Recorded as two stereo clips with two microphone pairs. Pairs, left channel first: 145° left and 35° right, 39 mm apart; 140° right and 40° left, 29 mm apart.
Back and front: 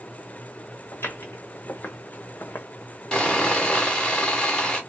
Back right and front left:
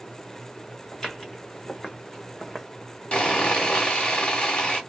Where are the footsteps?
145° left, 1.5 m; by 2.7 s 140° left, 0.6 m.